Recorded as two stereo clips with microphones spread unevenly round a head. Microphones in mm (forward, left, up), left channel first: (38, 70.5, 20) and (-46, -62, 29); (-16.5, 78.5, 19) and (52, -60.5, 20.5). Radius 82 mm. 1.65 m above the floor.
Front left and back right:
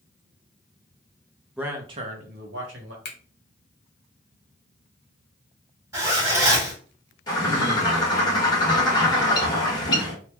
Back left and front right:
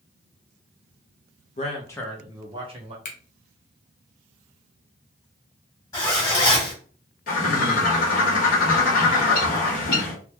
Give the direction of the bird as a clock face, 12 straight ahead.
8 o'clock.